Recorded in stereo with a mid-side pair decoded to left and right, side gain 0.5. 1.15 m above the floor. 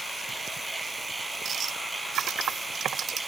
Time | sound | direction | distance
0.0 | a machine running | 25° right | ?
2.2 | typing on a keyboard | 70° right | ?